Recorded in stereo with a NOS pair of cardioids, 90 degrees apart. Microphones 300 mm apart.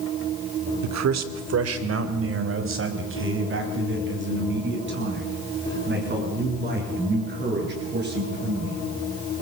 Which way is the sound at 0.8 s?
65° right.